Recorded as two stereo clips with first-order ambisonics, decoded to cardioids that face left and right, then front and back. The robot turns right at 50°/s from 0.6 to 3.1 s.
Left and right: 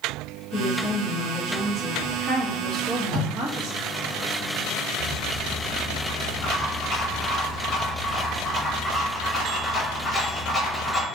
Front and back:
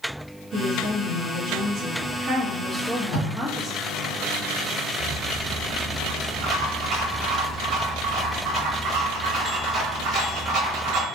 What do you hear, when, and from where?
0.5 s a woman speaking: 150° left, 0.9 m; by 3.7 s 85° right, 0.9 m
2.7 s tape being pulled: 105° right, 1.7 m; by 3.3 s 85° right, 1.7 m
5.0 s a rattle: 160° left, 1.1 m